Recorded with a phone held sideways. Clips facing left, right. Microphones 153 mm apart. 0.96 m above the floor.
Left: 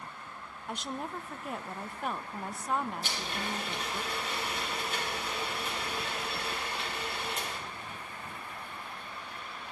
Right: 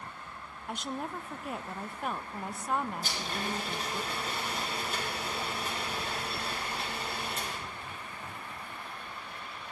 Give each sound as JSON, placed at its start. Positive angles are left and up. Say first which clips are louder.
{"t": 0.7, "sound": "a woman speaking", "louder": "right 1 dB", "side_deg": 0, "distance_m": 0.6}
{"t": 3.0, "sound": "a blender", "louder": "right 1 dB", "side_deg": -40, "distance_m": 7.5}